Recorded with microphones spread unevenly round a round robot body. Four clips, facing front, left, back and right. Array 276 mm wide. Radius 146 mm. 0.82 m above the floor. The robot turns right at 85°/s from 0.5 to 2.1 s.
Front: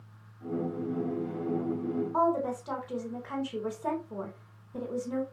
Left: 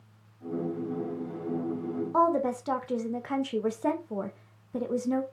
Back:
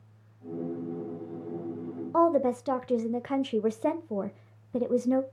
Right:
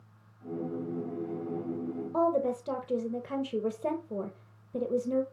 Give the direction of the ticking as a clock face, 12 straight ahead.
No ticking in this recording.